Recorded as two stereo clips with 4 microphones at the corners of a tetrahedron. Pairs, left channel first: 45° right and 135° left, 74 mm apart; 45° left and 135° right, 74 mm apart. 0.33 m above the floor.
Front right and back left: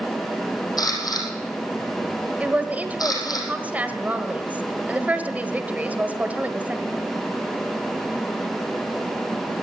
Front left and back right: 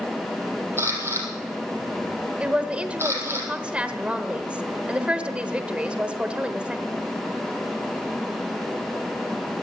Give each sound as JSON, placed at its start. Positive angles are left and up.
{"t": 0.8, "sound": "a camera shutter", "azimuth_deg": -80, "distance_m": 4.0}
{"t": 2.4, "sound": "a woman speaking", "azimuth_deg": 170, "distance_m": 1.2}